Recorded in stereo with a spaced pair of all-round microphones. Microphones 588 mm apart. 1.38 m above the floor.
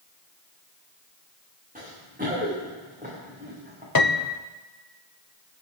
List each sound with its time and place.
1.8 s running footsteps: 15° right (ahead or behind), 8.5 m
4.0 s a piano: 40° left (ahead or behind), 0.7 m